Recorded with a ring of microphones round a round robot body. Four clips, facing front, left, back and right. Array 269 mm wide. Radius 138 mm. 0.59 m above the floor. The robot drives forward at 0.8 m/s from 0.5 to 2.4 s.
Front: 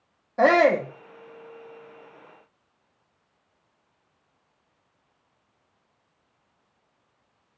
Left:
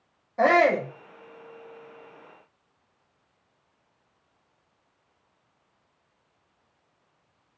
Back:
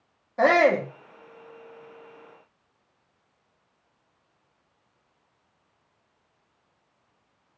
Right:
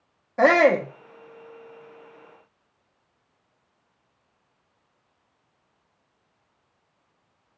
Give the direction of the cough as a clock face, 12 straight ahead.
No cough in this recording.